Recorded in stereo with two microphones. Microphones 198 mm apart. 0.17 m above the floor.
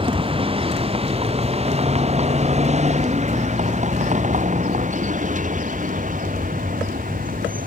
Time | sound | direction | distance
0.0 | a vehicle | 25° right (ahead or behind) | ?